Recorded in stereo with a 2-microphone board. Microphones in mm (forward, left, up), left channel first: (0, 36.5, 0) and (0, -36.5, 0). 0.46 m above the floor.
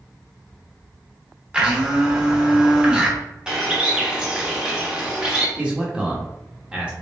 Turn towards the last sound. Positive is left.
turn(degrees=-15)  # may be behind; listen again after turning